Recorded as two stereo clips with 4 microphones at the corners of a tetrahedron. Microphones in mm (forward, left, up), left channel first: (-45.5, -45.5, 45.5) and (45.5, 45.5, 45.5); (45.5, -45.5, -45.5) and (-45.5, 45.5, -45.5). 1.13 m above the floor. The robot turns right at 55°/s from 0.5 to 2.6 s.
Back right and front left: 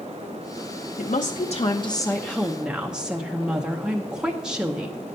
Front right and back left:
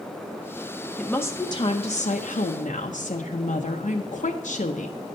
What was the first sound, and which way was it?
A woman speaking, 130° right.